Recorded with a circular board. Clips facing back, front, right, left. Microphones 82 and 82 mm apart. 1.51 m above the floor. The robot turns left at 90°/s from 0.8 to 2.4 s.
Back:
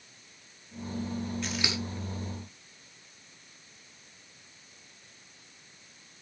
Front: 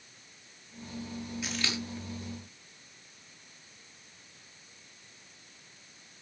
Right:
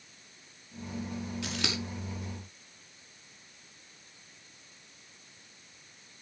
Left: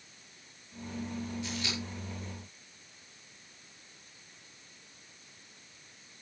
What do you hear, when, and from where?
1.4 s scissors: 85° right, 4.5 m; by 1.8 s 115° right, 4.5 m